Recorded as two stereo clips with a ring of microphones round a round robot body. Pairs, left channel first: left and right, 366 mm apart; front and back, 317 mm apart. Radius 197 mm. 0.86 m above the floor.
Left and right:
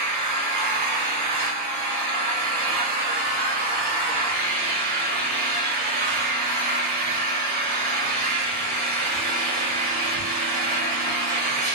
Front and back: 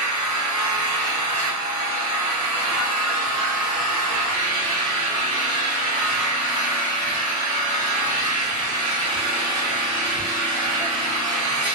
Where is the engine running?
105° right, 1.8 m.